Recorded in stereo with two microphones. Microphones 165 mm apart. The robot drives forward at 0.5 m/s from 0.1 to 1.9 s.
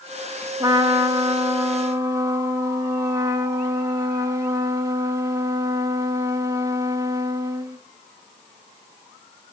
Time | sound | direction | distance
0.6 | a trumpet | 25° right (ahead or behind) | 0.6 m